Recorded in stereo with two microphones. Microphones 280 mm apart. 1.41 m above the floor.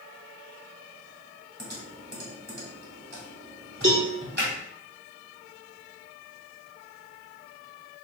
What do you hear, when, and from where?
1.6 s typing on a keyboard: 35° right (ahead or behind), 1.5 m
3.8 s a cowbell: 50° right (ahead or behind), 1.3 m